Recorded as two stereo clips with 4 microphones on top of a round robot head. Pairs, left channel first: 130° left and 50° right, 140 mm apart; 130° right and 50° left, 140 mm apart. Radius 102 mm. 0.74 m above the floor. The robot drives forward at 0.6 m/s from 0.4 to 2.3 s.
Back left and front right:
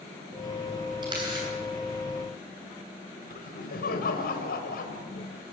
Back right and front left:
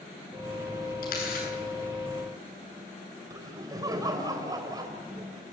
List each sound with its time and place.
1.0 s a camera shutter: 110° right, 10 m; by 1.5 s 115° right, 10 m
3.3 s laughter: 115° left, 4 m